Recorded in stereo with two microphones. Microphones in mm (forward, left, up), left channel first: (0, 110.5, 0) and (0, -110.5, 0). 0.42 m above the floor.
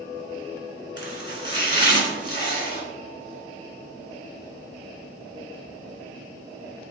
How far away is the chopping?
About 2 m.